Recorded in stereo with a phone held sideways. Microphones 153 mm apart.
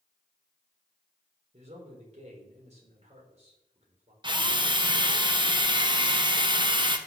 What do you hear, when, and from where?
1.5 s a man speaking: 45° right (ahead or behind), 4 m
4.2 s a drill: 30° right (ahead or behind), 1.2 m